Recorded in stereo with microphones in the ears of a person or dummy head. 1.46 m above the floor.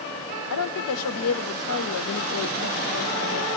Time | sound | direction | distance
0.5 | a woman speaking | 75° left (ahead or behind) | 1.0 m